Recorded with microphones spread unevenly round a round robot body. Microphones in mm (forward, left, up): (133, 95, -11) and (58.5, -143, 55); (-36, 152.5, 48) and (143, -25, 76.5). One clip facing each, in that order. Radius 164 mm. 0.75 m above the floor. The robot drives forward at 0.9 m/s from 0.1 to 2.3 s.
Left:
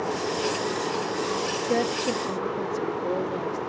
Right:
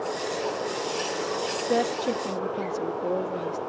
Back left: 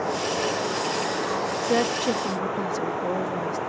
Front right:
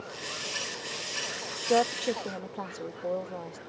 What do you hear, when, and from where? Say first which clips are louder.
0.0 s running water: left 2 dB, back left 16 dB; 135° left; by 3.7 s 140° left
1.6 s a woman speaking: right 1 dB, back left 2 dB; 145° left; by 3.6 s 165° left